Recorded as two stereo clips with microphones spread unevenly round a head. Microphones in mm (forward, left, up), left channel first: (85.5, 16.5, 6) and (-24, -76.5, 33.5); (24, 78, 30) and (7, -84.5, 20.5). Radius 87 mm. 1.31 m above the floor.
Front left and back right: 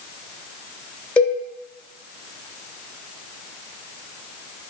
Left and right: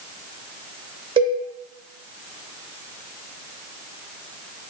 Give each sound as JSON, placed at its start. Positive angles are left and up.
{"t": 1.2, "sound": "a cowbell", "azimuth_deg": -35, "distance_m": 0.8}